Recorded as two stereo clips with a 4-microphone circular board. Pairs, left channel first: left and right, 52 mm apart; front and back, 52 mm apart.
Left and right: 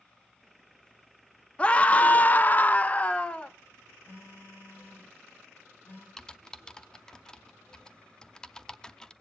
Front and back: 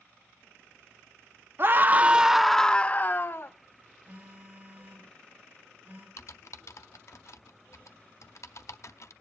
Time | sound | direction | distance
1.6 | a scream | 150° left | 0.7 m
4.0 | a phone buzzing | 130° left | 7 m
6.2 | typing on a keyboard | 15° left | 0.6 m